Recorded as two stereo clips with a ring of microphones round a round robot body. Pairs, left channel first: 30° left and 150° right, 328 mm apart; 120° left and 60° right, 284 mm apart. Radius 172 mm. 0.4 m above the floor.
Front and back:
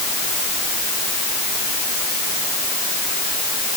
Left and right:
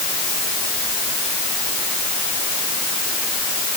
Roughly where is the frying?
I don't hear frying.